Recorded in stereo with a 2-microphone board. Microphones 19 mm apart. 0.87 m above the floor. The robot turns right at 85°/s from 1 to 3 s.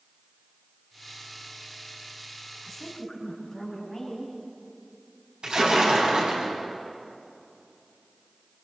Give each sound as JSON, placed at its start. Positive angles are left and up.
{"t": 2.6, "sound": "a woman speaking", "azimuth_deg": -15, "distance_m": 5.5}
{"t": 5.4, "sound": "a splash", "side_deg": -65, "distance_m": 5.0}